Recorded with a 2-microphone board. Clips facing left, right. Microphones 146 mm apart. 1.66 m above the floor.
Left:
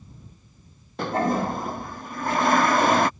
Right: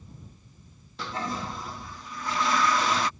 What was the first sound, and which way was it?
A toilet flushing, 55° left (ahead or behind).